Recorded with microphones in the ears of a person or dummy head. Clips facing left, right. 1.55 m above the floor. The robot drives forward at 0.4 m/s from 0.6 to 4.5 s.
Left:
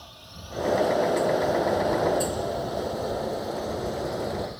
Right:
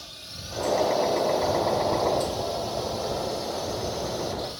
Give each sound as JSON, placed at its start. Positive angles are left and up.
{"t": 0.0, "sound": "a drone", "side_deg": -30}